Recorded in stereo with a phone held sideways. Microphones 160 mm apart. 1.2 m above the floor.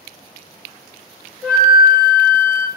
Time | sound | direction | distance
1.4 | a flute | 15° right (ahead or behind) | 2.5 m